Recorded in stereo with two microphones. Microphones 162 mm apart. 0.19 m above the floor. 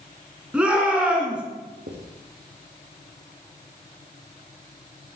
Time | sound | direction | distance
0.5 | a shout | 5° right (ahead or behind) | 2.5 m
1.9 | writing | 85° right | 3 m